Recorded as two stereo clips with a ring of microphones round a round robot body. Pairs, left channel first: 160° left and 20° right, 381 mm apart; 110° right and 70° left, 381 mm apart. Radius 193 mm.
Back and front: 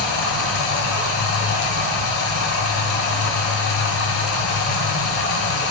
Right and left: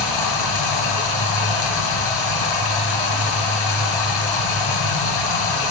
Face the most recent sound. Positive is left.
turn(degrees=-145)